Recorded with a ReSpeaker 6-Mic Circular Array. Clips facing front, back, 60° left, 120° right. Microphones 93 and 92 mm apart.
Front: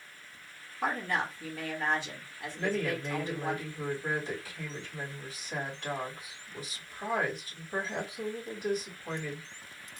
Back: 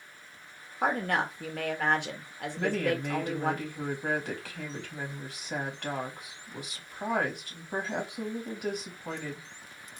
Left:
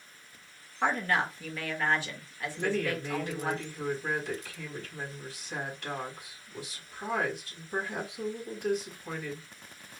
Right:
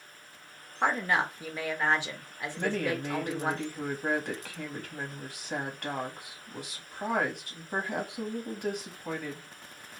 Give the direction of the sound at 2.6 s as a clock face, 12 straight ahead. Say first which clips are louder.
Back 3 dB, even; 5 o'clock.